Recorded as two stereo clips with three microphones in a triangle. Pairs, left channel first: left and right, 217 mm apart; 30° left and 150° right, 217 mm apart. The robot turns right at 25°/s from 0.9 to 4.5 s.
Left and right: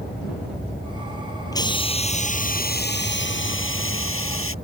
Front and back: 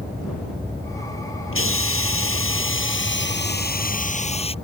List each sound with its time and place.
1.5 s a hiss: 20° left; by 4.5 s 90° left